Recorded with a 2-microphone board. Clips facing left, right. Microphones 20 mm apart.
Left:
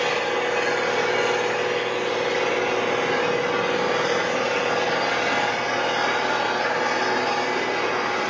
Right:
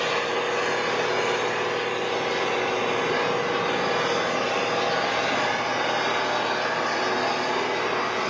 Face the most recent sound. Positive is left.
turn(degrees=40)  # may be behind; listen again after turning